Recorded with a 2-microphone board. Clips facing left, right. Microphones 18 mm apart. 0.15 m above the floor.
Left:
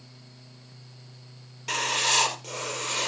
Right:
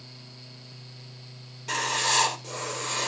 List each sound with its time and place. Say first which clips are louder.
1.7 s writing: left 1 dB; 35° left (ahead or behind), 2.5 m